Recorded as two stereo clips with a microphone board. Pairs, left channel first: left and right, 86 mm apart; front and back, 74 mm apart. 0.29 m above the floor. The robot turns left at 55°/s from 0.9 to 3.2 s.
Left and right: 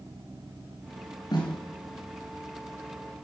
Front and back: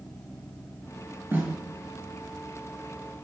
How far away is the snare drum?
About 3 m.